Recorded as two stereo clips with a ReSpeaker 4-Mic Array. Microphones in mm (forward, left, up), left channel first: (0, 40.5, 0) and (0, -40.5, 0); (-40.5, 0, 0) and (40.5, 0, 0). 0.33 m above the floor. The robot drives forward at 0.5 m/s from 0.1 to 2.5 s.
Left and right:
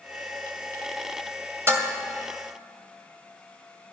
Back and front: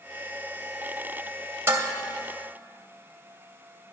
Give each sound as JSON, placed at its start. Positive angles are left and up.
{"t": 1.7, "sound": "dishes clattering", "azimuth_deg": -45, "distance_m": 1.1}